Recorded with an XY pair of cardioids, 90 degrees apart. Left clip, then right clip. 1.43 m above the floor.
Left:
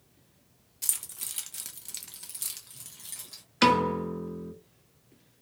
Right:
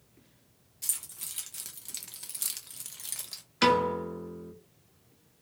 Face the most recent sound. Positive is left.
turn(degrees=25)